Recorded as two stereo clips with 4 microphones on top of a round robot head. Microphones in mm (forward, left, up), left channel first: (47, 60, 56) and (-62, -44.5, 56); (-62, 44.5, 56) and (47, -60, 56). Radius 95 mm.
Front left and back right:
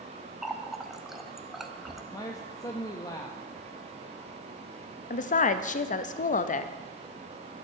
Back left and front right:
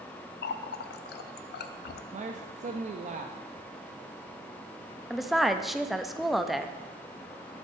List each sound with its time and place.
0.4 s a running tap: 135° left, 0.5 m
2.1 s a man speaking: 20° right, 0.6 m
5.1 s a woman speaking: 45° left, 0.5 m